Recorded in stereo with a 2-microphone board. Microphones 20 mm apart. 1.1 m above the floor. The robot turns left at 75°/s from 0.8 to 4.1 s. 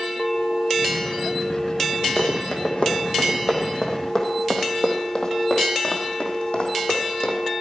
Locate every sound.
2.2 s running footsteps: 25° left (ahead or behind), 3 m; by 7.4 s 70° left (ahead or behind), 3 m